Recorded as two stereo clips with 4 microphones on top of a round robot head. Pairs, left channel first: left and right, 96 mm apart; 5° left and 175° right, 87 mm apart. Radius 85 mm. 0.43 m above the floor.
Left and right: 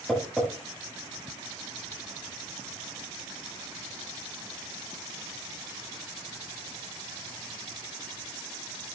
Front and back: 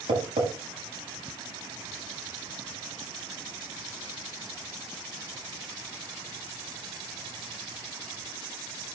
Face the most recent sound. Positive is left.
turn(degrees=-170)